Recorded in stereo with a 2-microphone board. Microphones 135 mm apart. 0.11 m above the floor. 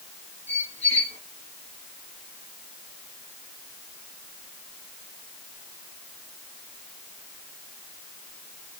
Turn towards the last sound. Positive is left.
turn(degrees=55)  # may be behind; listen again after turning